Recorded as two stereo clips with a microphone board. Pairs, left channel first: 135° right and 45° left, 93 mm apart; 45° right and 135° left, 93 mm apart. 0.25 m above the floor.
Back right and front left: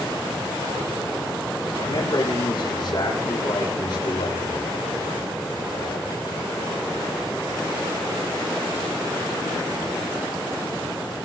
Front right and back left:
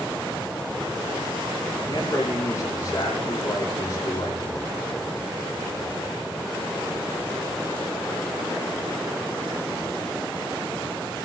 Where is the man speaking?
100° right, 10 m.